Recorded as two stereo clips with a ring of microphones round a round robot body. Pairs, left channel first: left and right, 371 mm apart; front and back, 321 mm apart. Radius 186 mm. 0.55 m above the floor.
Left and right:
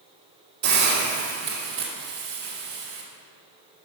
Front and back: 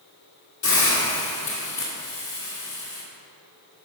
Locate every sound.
0.6 s a hiss: 35° right, 1.7 m